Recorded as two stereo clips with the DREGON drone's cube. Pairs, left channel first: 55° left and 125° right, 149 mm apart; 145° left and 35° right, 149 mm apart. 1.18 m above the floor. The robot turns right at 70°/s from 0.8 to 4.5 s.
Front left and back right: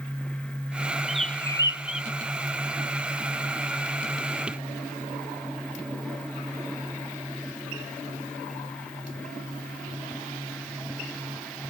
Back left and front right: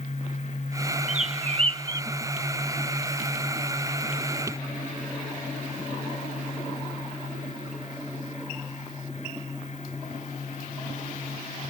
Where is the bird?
40° right; by 2.1 s 30° left.